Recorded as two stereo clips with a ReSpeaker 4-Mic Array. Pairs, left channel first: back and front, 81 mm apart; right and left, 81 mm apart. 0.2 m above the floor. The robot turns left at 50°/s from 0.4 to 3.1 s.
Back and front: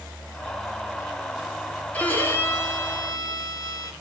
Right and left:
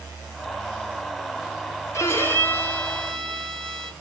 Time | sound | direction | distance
1.9 | a violin | 115° right | 0.9 m